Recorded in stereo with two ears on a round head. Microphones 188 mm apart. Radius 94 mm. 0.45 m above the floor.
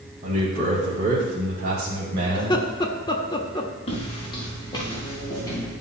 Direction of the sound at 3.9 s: 30° left (ahead or behind).